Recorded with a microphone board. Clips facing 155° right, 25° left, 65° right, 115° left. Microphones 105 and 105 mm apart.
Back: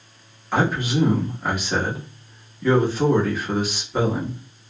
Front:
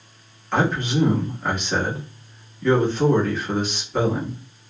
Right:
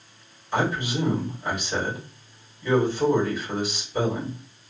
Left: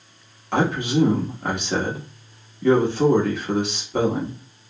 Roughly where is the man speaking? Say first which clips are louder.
Even, left 4 dB; behind left.